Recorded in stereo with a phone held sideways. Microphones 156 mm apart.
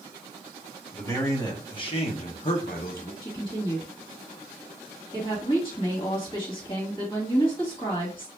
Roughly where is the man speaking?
Centre.